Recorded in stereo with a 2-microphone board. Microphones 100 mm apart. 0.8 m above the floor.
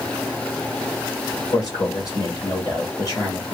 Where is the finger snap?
No finger snap in this recording.